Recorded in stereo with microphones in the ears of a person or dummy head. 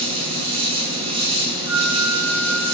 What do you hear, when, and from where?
0.0 s an insect: 25° right (ahead or behind), 1.1 m
1.7 s a flute: 85° left, 2.5 m